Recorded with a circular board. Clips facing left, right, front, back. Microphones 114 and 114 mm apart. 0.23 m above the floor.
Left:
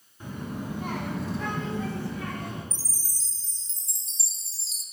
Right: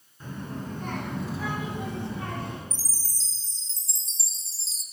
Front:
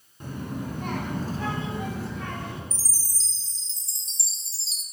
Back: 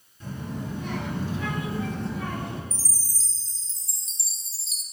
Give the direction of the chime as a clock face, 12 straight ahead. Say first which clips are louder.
Even, back 2 dB; 10 o'clock.